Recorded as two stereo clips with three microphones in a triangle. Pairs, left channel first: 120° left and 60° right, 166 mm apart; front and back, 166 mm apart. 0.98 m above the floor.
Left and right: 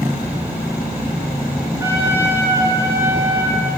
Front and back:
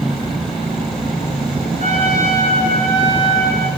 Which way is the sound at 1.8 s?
135° right.